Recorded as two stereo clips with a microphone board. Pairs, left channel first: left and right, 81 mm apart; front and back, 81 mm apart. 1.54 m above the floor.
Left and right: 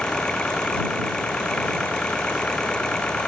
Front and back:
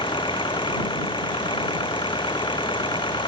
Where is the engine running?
10° left.